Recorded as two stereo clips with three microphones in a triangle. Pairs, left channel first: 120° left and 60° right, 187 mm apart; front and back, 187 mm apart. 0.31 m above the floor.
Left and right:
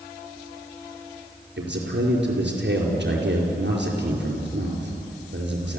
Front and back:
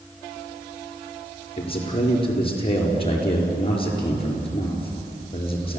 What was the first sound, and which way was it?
A man speaking, 60° right.